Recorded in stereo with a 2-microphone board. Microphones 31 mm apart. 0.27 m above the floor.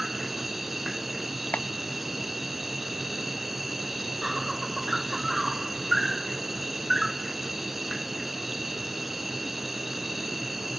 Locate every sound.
0.0 s an insect: 15° right (ahead or behind)
1.5 s a clap: 50° left (ahead or behind)